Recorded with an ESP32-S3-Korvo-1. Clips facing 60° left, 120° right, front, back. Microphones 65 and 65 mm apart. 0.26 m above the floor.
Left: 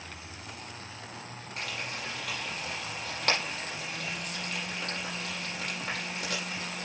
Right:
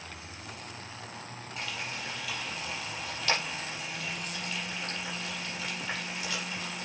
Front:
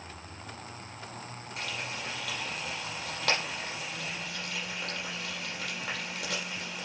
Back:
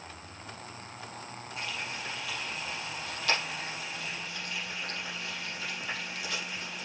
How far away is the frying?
About 6 m.